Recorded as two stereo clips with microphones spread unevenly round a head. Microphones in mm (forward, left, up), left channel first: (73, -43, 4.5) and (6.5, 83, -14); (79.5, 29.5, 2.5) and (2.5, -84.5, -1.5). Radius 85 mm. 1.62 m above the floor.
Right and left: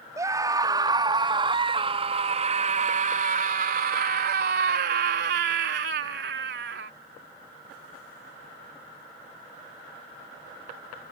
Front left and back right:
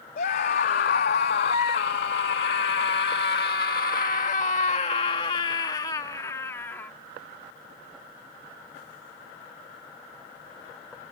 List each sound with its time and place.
0.2 s a scream: 50° left; by 6.9 s 135° left